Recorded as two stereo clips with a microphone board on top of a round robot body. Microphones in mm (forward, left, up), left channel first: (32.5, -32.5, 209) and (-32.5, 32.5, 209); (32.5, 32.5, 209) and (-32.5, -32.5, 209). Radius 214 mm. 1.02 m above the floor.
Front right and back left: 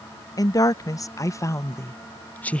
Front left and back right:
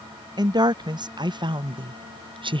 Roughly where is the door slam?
I don't hear a door slam.